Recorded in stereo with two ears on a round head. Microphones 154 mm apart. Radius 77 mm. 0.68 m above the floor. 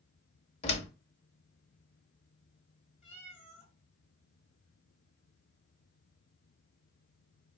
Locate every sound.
0.6 s a door slam: 35° left (ahead or behind), 0.8 m
3.0 s a cat meowing: 40° left (ahead or behind), 2.5 m